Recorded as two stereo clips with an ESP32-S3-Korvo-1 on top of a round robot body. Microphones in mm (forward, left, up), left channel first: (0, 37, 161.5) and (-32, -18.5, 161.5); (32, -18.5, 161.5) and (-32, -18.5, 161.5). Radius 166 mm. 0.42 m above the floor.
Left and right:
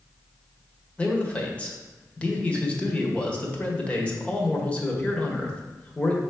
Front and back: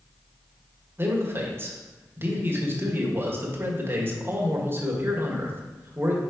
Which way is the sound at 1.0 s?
130° left.